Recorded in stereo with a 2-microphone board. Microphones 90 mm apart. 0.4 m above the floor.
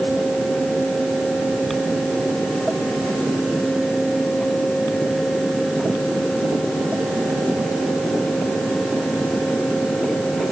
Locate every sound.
Only background noise.